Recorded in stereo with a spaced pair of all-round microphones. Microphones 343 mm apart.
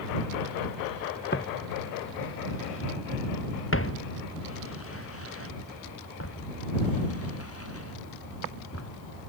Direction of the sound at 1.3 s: 30° left (ahead or behind).